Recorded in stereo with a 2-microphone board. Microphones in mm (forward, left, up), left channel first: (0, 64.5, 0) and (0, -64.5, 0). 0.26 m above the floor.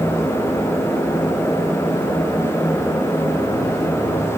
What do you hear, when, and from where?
Only background noise.